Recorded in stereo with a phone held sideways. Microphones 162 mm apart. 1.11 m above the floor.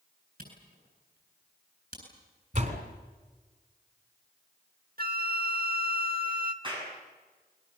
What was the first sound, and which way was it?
A camera shutter, 65° right (ahead or behind).